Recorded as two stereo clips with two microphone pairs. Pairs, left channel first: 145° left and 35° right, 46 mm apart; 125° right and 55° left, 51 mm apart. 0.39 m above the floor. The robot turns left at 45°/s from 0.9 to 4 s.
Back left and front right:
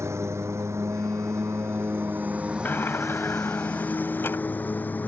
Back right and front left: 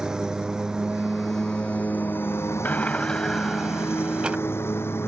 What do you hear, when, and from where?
0.0 s a lawn mower: 25° right; by 5.1 s 165° right
2.6 s a sliding door: 175° right; by 4.4 s 125° left